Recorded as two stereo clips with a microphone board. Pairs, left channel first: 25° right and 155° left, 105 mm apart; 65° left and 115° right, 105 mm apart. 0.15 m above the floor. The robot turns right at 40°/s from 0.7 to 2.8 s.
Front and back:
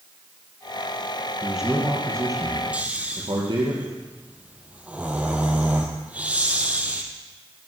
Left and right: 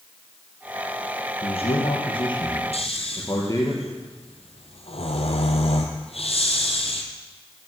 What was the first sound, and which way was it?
A man speaking, 65° left.